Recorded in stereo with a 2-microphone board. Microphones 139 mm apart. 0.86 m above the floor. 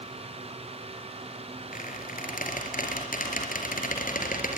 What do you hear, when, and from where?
1.7 s a squeak: 80° left, 4 m